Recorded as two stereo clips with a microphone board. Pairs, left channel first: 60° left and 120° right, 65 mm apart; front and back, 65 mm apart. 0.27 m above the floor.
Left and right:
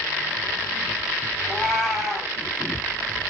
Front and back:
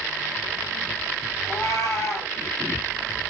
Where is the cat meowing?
40° right, 2 m.